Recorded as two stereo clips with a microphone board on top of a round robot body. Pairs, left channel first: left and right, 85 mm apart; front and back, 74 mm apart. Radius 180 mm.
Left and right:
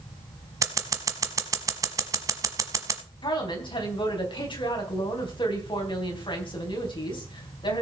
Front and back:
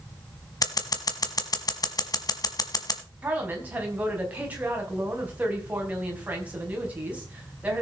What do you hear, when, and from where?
0.6 s scissors: 35° right, 1.3 m
3.2 s a woman speaking: 110° left, 4.5 m